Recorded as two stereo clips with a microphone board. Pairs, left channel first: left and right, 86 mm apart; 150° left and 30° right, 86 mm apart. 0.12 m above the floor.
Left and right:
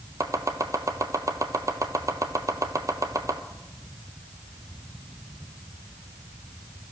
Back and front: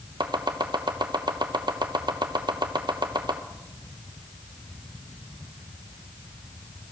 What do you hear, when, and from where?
0.2 s chopping: 45° right, 0.7 m